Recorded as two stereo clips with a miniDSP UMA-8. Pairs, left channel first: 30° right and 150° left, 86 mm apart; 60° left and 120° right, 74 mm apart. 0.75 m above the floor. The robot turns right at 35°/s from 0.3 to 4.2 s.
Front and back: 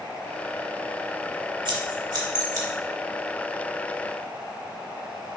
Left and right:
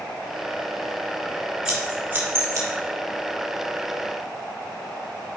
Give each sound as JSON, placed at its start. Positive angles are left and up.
{"t": 1.6, "sound": "scissors", "azimuth_deg": 160, "distance_m": 1.9}